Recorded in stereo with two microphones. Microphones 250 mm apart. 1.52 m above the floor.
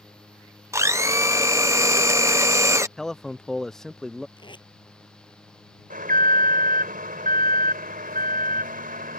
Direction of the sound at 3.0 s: Centre (ahead or behind).